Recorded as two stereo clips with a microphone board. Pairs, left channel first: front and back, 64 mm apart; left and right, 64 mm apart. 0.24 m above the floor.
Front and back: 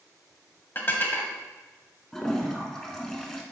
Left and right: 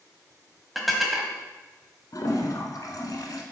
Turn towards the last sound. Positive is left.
turn(degrees=80)